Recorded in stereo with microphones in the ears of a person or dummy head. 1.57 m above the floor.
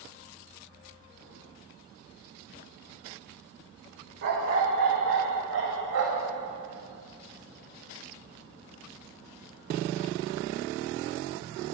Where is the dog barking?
65° right (ahead or behind), 2.5 m; by 6.3 s 70° right (ahead or behind), 3 m.